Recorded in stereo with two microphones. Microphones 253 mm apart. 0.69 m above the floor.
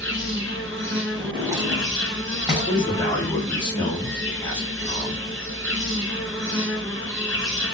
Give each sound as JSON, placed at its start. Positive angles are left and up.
{"t": 0.0, "sound": "an insect", "side_deg": -50, "distance_m": 0.9}
{"t": 1.1, "sound": "a drawer", "side_deg": -15, "distance_m": 1.2}
{"t": 2.7, "sound": "a man speaking", "side_deg": 15, "distance_m": 1.4}